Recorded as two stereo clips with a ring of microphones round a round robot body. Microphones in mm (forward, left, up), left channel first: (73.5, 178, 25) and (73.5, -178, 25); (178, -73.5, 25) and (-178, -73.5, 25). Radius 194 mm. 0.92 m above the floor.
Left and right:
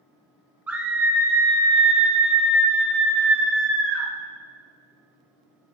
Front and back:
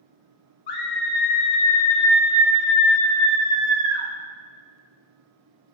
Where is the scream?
5° right, 1.5 m; by 4.1 s 175° right, 2.0 m.